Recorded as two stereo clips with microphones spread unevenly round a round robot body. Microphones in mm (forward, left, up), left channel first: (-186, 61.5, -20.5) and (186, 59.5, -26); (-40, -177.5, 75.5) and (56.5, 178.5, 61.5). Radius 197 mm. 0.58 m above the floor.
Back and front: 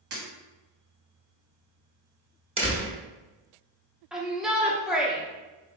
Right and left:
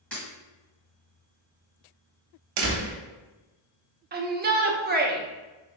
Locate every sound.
0.1 s breaking glass: 20° right, 1.7 m
2.6 s a door slam: 75° left, 0.9 m
4.1 s a shout: 85° left, 0.7 m